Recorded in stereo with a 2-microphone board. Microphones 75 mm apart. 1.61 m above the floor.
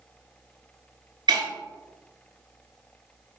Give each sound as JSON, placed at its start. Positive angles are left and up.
{"t": 1.3, "sound": "breaking glass", "side_deg": -65, "distance_m": 2.5}